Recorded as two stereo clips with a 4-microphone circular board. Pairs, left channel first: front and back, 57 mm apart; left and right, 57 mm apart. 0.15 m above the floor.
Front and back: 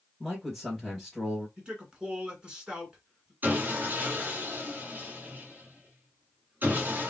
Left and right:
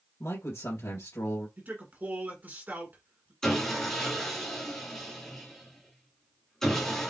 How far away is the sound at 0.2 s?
About 2 m.